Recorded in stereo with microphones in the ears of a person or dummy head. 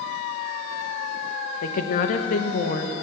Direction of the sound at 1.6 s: 45° left (ahead or behind).